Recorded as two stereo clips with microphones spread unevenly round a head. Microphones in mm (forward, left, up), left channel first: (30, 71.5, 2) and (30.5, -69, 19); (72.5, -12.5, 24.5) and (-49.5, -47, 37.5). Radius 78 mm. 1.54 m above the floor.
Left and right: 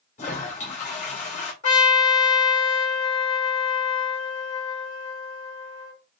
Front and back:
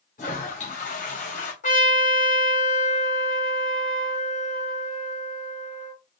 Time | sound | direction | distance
0.2 | a toilet flushing | 55° left | 2 m
1.6 | a trumpet | 55° left | 2.5 m